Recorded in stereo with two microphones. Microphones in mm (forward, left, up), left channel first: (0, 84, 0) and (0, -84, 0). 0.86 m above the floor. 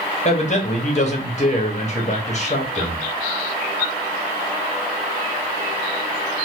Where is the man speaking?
45° left (ahead or behind), 1.2 m.